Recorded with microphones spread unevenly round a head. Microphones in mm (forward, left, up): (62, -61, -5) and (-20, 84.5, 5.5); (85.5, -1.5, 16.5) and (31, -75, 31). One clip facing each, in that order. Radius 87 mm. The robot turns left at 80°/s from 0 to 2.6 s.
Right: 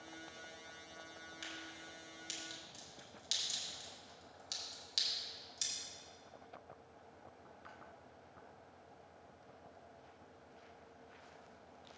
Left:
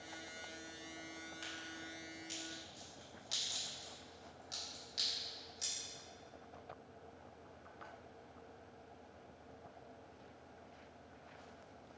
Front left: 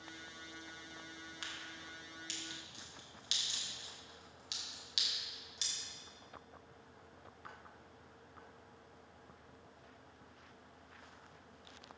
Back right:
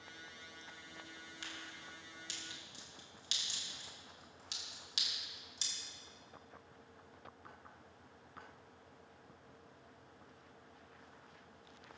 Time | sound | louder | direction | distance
1.4 | a crack | left 2 dB, even | 15° left | 4.5 m